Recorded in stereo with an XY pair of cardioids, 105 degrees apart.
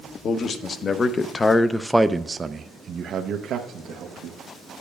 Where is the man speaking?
55° left, 1.1 m; by 4.4 s 75° right, 1.3 m.